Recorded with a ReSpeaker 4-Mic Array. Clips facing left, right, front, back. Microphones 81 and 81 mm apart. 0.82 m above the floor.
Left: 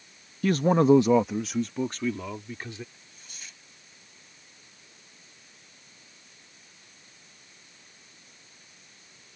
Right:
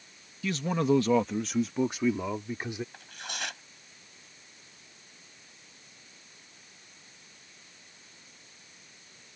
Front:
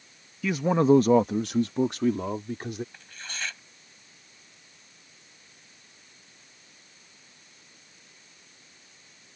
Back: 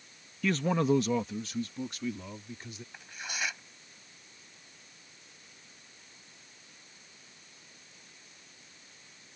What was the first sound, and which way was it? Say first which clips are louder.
A man speaking: left 7 dB, front 6 dB; 85° left.